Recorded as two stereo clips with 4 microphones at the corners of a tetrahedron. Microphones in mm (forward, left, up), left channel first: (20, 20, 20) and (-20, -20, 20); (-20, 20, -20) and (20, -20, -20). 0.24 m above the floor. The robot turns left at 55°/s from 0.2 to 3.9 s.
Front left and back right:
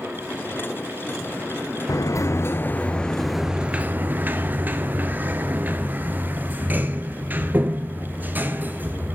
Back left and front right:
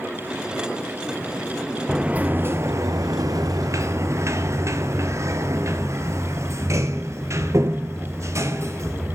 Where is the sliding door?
35° left, 1.0 m; by 9.2 s 75° right, 1.0 m.